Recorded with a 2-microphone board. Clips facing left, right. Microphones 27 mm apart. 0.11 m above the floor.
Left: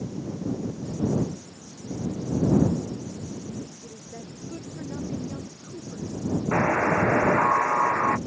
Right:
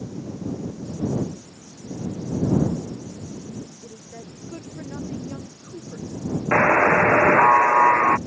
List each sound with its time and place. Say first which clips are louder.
3.8 s a woman speaking: right 1 dB; 25° right (ahead or behind)
6.5 s a buzzer: right 7 dB; 55° right (ahead or behind)